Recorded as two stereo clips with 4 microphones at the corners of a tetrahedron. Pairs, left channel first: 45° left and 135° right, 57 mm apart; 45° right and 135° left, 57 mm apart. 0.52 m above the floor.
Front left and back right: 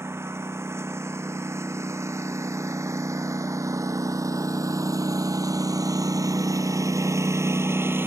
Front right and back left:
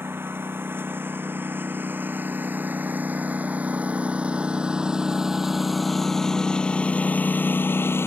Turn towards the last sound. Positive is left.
turn(degrees=-85)